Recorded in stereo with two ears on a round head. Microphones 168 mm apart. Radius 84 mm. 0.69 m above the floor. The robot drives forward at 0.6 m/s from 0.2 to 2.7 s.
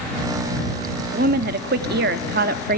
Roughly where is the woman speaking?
Right.